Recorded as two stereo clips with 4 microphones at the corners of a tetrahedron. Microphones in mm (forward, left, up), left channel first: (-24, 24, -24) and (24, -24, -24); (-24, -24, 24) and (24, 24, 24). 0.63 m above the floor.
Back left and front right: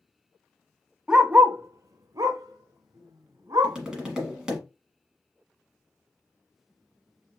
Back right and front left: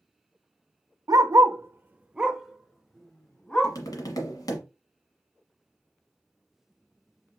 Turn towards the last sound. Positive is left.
turn(degrees=-125)